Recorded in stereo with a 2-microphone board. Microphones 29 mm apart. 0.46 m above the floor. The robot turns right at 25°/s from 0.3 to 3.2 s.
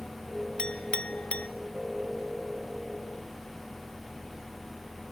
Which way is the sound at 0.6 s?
25° left (ahead or behind).